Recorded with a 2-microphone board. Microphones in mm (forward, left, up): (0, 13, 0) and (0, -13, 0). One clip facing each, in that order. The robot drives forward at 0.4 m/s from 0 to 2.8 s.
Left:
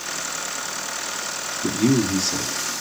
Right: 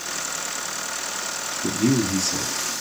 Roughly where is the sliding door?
No sliding door in this recording.